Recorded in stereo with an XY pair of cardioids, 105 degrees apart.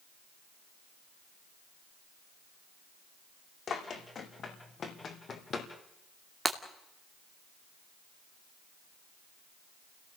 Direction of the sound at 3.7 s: 55° left.